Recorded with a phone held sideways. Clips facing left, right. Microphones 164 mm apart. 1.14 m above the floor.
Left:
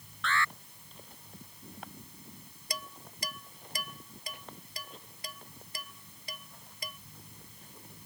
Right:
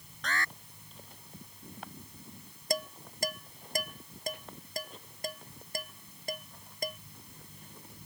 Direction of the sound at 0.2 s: 40° right (ahead or behind).